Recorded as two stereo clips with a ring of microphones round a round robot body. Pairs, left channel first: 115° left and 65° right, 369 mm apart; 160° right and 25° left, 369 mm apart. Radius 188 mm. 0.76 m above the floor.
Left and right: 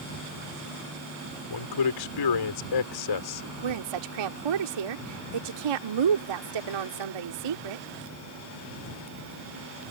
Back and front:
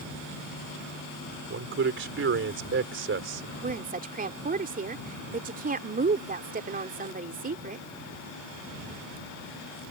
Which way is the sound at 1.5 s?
85° left.